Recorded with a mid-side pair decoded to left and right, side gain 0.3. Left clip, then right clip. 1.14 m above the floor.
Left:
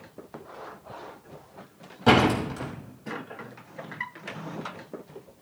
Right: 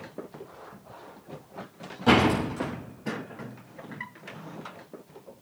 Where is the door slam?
55° left, 5.5 m.